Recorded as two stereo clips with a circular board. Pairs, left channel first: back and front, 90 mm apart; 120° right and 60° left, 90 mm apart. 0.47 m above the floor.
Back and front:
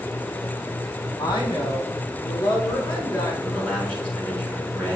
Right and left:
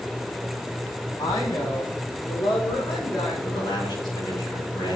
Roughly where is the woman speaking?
Behind right.